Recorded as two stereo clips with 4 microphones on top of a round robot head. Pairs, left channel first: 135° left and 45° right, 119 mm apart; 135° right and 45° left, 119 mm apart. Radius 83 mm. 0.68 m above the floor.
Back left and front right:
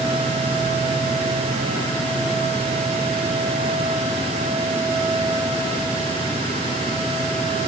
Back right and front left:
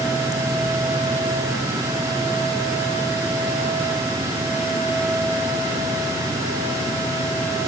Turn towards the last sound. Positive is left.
No sound to turn to.